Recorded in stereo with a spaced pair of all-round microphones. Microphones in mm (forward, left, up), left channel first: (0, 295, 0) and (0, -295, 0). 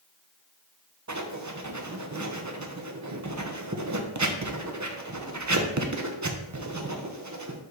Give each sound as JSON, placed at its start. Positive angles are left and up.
{"t": 1.1, "sound": "writing", "side_deg": -30, "distance_m": 0.7}